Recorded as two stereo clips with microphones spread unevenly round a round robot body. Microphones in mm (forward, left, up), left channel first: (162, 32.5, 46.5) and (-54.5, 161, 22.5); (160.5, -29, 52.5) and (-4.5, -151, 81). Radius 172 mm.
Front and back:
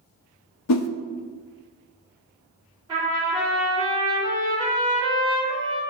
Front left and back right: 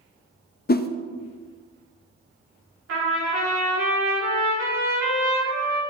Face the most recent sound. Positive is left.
turn(degrees=-135)